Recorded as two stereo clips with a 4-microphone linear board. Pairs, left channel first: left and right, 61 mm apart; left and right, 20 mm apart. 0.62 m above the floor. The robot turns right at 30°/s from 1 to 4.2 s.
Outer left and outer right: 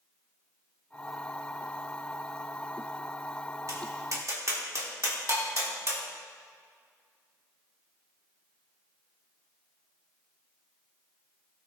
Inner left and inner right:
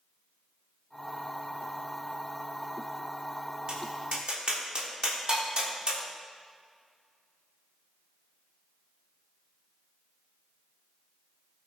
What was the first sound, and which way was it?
Tapping, 60° right (ahead or behind).